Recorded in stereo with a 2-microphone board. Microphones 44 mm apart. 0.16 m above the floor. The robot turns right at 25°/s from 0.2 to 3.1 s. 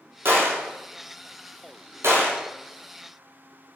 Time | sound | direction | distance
0.2 | a gunshot | 60° right (ahead or behind) | 1.3 m